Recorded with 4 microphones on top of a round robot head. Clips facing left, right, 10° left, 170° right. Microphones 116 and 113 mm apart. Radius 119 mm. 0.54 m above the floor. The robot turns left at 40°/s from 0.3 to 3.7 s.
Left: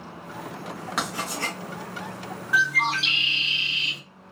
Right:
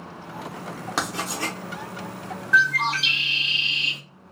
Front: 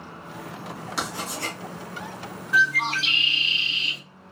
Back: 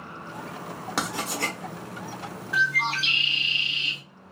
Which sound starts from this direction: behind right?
Writing, at 1.0 s.